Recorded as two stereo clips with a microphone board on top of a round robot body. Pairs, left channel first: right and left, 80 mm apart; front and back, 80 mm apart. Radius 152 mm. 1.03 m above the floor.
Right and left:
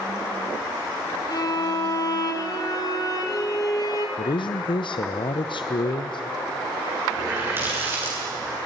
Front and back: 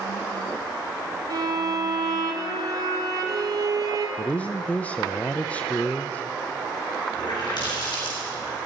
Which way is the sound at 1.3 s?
135° right.